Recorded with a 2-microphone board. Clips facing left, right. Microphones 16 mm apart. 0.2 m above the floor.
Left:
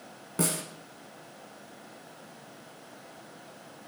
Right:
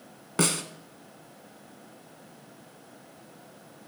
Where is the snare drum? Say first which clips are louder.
Right 4 dB; 35° right (ahead or behind), 0.8 m.